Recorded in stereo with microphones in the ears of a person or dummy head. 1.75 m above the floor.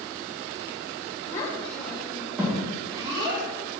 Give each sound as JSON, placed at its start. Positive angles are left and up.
{"t": 1.3, "sound": "a child speaking", "side_deg": 20, "distance_m": 1.2}